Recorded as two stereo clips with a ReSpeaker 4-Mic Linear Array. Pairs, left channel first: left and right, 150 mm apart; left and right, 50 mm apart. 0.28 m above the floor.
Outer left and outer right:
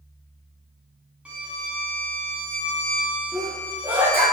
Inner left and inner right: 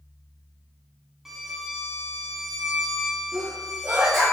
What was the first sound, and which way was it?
A violin, 10° right (ahead or behind).